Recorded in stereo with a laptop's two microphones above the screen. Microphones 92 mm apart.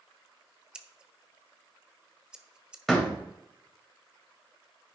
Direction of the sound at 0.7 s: 10° right (ahead or behind).